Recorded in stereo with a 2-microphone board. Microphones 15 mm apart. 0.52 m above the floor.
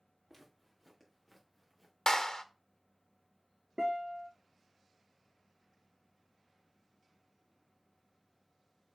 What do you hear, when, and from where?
0.3 s footsteps: 15° right (ahead or behind), 4.5 m; by 1.9 s 20° right (ahead or behind), 2.5 m
2.1 s a clap: 55° left (ahead or behind), 0.9 m
3.8 s a guitar: 60° right (ahead or behind), 5 m